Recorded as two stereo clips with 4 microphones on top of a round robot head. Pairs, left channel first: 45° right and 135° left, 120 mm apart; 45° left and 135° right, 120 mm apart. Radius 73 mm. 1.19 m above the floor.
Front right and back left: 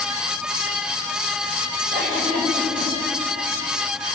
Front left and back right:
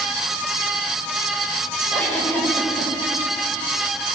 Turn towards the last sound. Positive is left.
turn(degrees=120)